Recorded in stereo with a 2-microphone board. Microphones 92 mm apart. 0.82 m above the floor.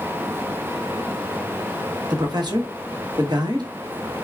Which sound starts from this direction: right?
A man speaking, at 2.1 s.